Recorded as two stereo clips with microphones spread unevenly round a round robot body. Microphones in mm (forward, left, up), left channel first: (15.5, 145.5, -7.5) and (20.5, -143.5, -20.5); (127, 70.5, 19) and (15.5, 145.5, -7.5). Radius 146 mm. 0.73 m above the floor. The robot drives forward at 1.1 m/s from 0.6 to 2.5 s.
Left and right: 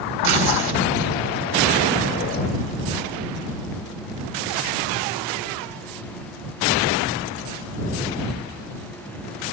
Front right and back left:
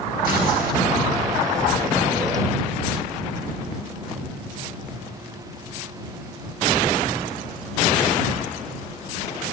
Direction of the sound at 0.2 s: 95° right.